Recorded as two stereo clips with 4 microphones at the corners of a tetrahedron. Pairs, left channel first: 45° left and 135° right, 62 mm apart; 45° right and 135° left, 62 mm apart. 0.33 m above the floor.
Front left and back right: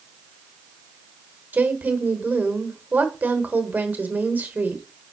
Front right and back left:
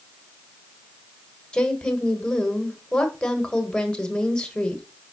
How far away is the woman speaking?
About 1.1 m.